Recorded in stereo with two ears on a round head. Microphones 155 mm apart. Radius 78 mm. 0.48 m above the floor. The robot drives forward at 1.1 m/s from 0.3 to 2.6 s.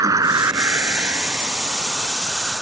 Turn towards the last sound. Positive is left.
turn(degrees=-5)  # may be behind; listen again after turning